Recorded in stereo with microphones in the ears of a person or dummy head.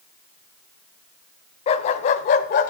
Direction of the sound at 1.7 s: 35° left (ahead or behind).